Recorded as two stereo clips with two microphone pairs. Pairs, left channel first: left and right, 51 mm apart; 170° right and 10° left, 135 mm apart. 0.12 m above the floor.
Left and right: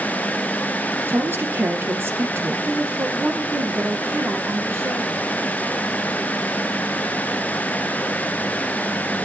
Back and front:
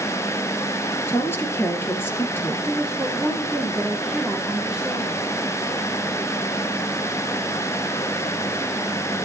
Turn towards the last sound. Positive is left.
turn(degrees=-85)